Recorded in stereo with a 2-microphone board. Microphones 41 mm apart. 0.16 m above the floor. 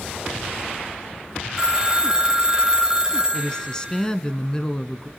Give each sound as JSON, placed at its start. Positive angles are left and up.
{"t": 1.6, "sound": "a phone ringing", "side_deg": -15, "distance_m": 0.7}
{"t": 3.3, "sound": "a woman speaking", "side_deg": 20, "distance_m": 1.3}